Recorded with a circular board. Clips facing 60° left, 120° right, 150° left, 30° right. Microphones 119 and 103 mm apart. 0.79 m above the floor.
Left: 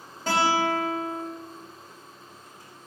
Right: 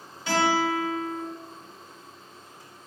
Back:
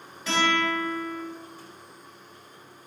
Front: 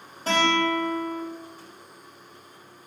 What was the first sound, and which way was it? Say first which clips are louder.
A guitar: even, front 3 dB; 20° left.